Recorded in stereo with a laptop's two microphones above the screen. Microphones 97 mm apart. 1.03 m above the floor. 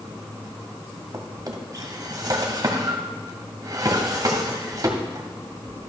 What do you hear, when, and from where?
1.1 s a drawer: 40° right (ahead or behind), 1.5 m